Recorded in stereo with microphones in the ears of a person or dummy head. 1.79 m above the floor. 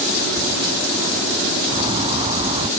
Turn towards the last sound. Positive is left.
turn(degrees=-30)  # may be behind; listen again after turning